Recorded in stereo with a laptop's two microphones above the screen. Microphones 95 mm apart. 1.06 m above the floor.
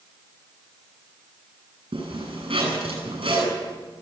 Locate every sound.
1.9 s a zipper: 80° right, 9.5 m